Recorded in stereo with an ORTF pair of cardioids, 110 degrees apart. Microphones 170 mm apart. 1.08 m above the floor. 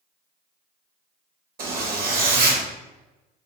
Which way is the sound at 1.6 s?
65° right.